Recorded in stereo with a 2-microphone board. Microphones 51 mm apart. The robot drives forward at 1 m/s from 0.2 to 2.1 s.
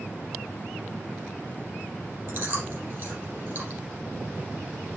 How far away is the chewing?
About 5 m.